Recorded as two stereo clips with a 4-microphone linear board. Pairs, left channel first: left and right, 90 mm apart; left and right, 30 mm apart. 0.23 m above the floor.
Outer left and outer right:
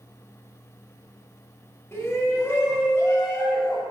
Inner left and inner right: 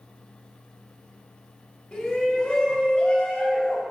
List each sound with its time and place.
1.9 s a shout: 25° left (ahead or behind), 1.3 m; by 3.8 s 30° left (ahead or behind), 2 m